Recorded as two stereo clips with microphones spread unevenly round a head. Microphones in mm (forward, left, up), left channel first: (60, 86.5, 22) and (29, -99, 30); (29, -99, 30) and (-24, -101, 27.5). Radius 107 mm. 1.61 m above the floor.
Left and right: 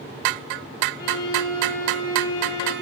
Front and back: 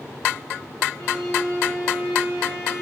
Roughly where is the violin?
Ahead left.